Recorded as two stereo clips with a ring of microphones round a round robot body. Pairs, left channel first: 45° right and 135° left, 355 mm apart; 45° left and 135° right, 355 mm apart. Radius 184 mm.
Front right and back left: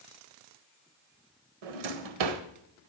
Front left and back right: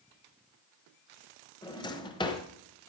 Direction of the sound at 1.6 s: 125° left.